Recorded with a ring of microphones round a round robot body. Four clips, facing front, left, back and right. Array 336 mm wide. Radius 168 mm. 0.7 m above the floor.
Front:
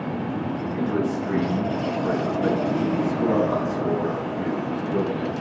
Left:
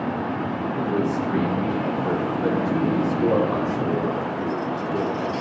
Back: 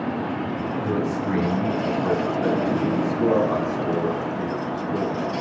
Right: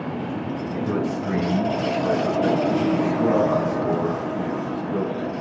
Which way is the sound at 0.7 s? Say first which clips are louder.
Left 1 dB, front 1 dB; 120° right.